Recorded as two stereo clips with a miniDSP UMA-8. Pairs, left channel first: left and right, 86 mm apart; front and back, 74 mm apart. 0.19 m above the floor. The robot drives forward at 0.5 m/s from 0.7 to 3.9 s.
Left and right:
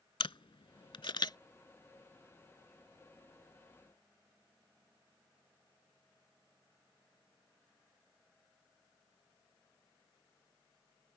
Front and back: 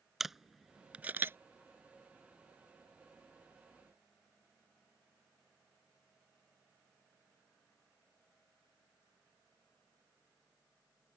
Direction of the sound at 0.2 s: 95° left.